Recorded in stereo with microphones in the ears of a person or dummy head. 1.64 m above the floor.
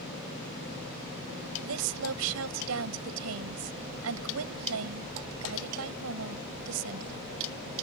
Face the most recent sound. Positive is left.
turn(degrees=-80)